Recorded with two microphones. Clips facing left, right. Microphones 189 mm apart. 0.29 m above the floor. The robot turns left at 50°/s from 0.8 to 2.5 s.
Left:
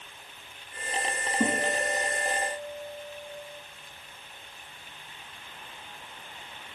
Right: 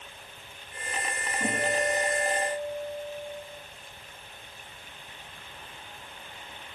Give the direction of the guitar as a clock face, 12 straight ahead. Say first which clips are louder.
Even; 9 o'clock.